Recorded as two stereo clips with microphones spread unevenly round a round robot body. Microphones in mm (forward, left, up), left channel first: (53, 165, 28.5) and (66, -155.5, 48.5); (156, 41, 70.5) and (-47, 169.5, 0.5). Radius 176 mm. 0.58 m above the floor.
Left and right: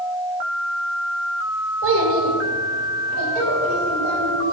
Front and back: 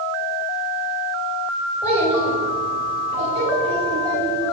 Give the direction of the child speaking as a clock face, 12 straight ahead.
5 o'clock.